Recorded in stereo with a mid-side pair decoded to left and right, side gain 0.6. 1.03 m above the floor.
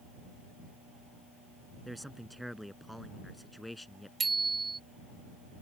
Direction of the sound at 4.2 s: 25° right.